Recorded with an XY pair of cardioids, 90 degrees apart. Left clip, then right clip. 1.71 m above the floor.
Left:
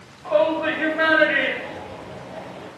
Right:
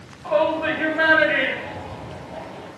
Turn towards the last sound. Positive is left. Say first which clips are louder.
# left 1 dB
turn(degrees=-15)